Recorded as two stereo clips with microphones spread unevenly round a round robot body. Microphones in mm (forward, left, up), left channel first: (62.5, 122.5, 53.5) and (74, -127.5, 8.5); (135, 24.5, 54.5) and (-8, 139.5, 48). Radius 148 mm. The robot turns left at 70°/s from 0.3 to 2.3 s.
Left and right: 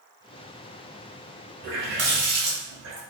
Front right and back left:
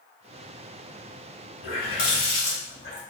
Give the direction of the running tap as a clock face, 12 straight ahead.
1 o'clock.